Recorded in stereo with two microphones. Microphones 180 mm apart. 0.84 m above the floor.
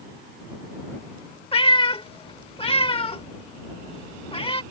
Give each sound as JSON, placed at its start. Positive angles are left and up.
{"t": 1.5, "sound": "a cat meowing", "side_deg": 30}